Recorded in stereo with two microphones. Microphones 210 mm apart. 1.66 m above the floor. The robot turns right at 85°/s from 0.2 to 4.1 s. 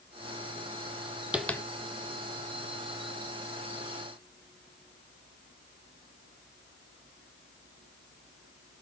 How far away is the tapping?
About 0.5 m.